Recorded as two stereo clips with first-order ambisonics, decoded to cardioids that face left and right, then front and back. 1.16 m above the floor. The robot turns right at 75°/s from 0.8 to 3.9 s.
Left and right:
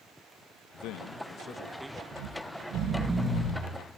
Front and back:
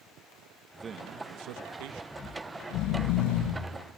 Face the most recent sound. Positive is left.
turn(degrees=50)